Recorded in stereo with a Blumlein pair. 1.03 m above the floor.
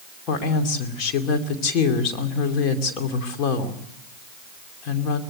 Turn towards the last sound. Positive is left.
turn(degrees=35)